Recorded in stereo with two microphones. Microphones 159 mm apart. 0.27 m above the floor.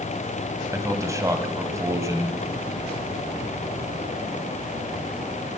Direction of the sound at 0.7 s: 20° right (ahead or behind).